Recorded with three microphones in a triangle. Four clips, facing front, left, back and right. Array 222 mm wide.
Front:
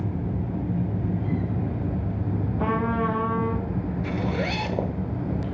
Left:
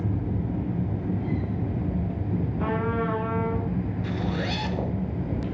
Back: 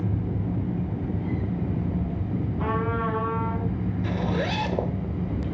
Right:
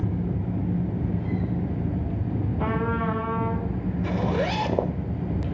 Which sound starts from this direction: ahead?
A trumpet, at 2.6 s.